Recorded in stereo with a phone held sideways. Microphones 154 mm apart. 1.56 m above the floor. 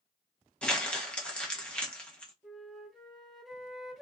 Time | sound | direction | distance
0.6 | crumpling | 5° left (ahead or behind) | 0.8 m
2.4 | a flute | centre (ahead or behind) | 0.9 m